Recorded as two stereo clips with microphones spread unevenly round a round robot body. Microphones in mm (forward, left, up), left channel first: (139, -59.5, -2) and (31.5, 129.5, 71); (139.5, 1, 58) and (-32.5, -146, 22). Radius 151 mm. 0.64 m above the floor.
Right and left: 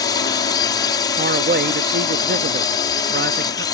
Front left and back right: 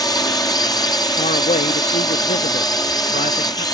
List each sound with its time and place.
0.0 s a drone: 35° right
1.2 s a man speaking: 90° left